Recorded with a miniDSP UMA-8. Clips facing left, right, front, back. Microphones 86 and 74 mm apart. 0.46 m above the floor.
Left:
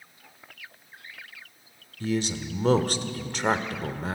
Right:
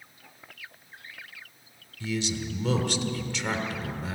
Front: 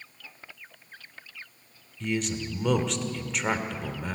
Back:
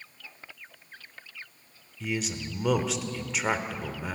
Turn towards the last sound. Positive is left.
turn(degrees=95)